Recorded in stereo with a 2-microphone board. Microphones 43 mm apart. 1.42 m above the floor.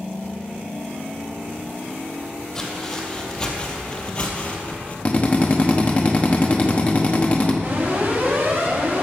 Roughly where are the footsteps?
Centre.